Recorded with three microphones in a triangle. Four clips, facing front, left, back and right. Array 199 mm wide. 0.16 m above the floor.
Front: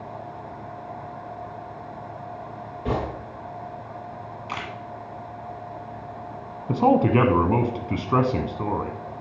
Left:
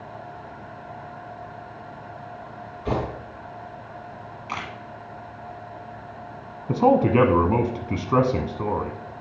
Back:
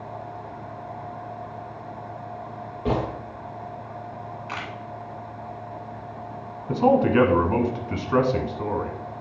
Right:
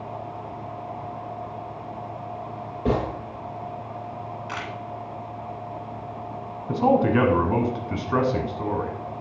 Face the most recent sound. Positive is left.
turn(degrees=40)